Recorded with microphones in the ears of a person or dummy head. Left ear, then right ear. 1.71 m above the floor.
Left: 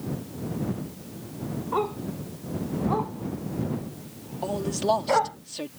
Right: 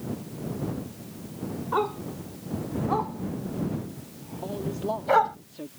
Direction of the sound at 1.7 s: 15° right (ahead or behind).